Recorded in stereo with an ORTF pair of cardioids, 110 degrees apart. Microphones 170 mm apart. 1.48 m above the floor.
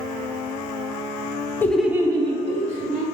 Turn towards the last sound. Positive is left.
turn(degrees=-50)